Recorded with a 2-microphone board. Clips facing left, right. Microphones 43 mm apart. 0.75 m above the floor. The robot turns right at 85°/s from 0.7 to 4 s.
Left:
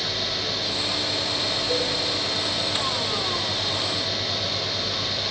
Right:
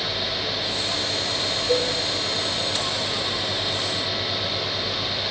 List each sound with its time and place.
1.7 s a cowbell: 40° right (ahead or behind), 1.4 m; by 1.9 s 55° right (ahead or behind), 1.4 m